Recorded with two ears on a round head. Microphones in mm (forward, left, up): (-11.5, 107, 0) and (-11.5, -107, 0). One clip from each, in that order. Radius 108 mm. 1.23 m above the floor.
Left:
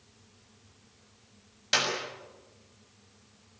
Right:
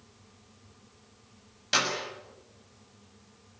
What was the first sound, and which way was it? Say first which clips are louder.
A clap: even; 10° left (ahead or behind).